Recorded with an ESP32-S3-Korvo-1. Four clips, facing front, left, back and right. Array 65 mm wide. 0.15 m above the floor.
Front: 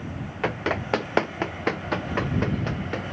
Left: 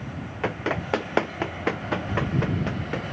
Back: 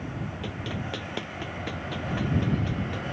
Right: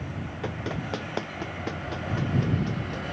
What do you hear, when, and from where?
0.4 s running footsteps: 40° left; by 3.0 s 45° left